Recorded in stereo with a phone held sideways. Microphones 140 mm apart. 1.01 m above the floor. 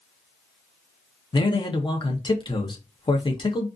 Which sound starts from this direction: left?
A man speaking, at 1.3 s.